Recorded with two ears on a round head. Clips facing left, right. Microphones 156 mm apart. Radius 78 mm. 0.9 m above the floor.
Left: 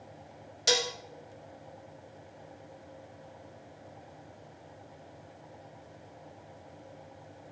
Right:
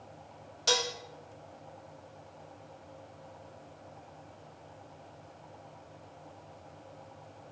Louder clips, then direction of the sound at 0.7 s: Left 2 dB; 20° left (ahead or behind).